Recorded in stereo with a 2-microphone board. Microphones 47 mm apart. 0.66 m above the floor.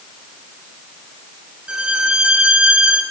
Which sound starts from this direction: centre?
A violin, at 1.7 s.